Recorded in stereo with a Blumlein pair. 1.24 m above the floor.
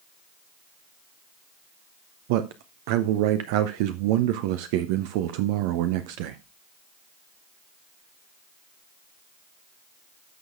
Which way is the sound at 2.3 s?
45° right.